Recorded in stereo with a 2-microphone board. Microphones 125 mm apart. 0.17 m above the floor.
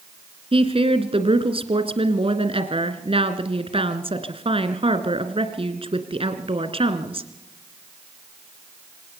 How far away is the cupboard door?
I don't hear a cupboard door.